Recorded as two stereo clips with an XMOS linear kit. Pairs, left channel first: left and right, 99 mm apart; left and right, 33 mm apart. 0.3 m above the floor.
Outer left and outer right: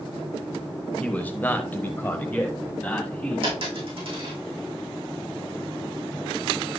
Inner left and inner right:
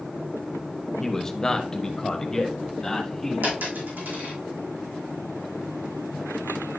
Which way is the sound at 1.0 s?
15° left (ahead or behind).